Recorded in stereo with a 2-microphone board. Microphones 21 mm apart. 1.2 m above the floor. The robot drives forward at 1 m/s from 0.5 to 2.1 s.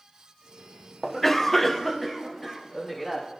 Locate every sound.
1.0 s a cough: 10° left (ahead or behind), 0.7 m